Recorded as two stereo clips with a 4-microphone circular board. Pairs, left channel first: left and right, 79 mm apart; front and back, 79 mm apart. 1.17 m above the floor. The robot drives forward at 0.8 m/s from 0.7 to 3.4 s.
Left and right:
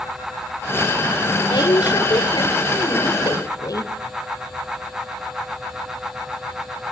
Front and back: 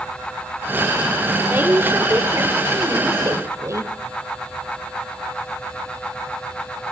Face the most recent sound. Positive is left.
turn(degrees=130)